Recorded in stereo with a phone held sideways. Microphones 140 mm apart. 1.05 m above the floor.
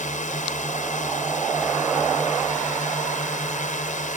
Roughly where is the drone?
Left.